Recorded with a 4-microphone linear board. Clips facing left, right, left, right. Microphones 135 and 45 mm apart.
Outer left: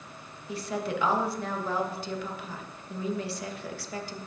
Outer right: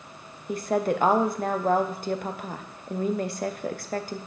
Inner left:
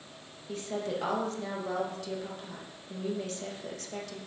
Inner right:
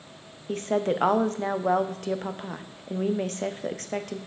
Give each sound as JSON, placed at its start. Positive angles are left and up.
{"t": 0.5, "sound": "a woman speaking", "side_deg": -45, "distance_m": 0.6}